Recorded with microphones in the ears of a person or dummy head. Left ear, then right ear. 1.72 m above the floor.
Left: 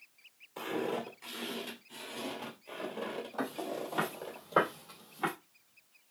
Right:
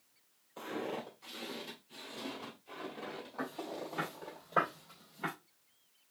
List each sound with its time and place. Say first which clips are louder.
0.6 s footsteps: left 5 dB; 40° left (ahead or behind), 2.5 m; by 4.4 s 55° left (ahead or behind), 3.5 m
3.4 s footsteps: left 3 dB; 40° left (ahead or behind), 2.5 m; by 5.3 s 55° left (ahead or behind), 3 m